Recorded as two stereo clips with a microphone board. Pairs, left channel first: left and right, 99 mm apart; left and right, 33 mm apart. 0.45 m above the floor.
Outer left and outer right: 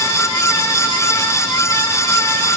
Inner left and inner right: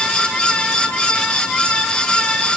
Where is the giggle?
No giggle in this recording.